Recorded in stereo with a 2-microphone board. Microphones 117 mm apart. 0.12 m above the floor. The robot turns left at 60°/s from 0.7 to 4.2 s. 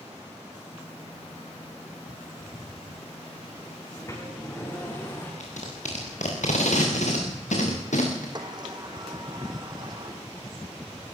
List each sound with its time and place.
3.9 s a sliding door: 35° left (ahead or behind), 8 m; by 5.3 s 20° left (ahead or behind), 8 m
5.4 s tape being pulled: 80° left, 6.5 m
8.3 s a sliding door: 35° right (ahead or behind), 3 m